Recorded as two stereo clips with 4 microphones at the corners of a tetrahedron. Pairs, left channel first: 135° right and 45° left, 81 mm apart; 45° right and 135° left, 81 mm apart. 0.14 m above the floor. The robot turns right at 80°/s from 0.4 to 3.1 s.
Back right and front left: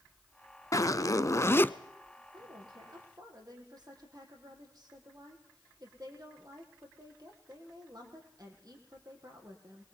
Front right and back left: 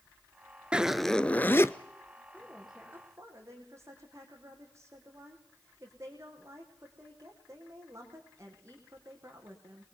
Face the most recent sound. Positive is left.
turn(degrees=85)